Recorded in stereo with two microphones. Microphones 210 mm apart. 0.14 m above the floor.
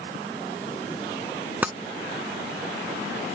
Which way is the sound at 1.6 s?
10° right (ahead or behind).